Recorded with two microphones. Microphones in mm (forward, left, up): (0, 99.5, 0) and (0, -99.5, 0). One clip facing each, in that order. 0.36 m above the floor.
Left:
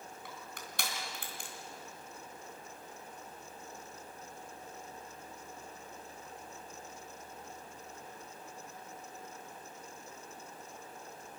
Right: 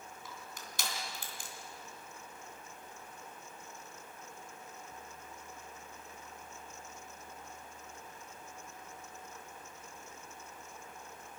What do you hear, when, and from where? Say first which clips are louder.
0.2 s crushing: left 1 dB; 60° left (ahead or behind), 4 m